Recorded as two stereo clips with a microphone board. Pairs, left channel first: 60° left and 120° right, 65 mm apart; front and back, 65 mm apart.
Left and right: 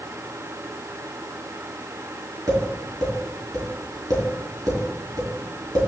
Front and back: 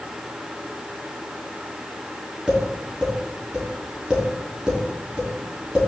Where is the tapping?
105° right, 3.5 m.